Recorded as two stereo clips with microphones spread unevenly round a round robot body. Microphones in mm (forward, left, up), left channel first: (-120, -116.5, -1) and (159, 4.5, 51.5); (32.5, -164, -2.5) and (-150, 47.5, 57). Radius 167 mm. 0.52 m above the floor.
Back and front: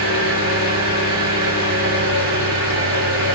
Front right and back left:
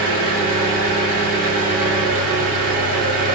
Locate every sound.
0.0 s an engine running: 155° left, 1.6 m